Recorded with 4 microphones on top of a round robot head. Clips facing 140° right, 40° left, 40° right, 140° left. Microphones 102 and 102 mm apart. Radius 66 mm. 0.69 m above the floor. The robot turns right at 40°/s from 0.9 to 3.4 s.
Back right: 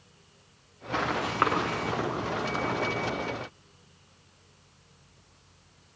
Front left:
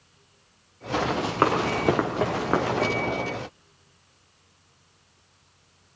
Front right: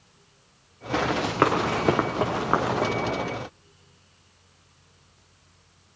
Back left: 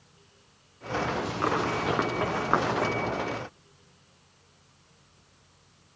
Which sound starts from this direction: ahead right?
Running footsteps, at 0.9 s.